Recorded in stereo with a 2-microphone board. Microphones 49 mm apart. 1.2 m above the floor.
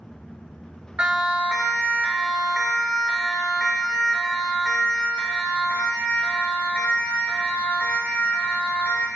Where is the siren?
30° right (ahead or behind), 3.5 m; by 9.1 s 45° left (ahead or behind), 6.5 m.